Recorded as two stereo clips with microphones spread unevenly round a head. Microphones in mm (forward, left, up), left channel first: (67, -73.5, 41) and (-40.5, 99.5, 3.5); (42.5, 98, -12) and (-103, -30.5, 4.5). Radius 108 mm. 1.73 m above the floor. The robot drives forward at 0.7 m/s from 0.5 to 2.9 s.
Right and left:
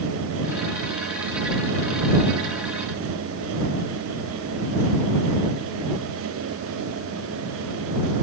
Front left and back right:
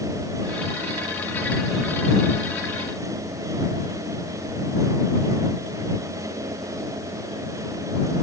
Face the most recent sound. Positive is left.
No sound to turn to.